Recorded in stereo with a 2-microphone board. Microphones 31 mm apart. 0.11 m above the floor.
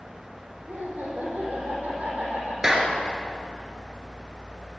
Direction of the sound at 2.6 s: 15° right (ahead or behind).